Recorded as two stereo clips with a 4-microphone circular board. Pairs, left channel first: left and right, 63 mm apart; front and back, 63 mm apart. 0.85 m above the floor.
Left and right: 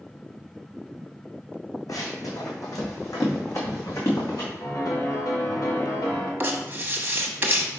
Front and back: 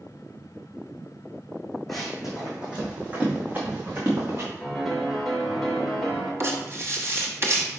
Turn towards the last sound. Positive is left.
turn(degrees=-145)